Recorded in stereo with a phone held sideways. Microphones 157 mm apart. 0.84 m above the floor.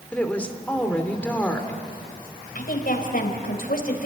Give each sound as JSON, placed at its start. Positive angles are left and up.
{"t": 0.1, "sound": "a woman speaking", "side_deg": 10, "distance_m": 2.5}
{"t": 2.5, "sound": "a woman speaking", "side_deg": 70, "distance_m": 4.0}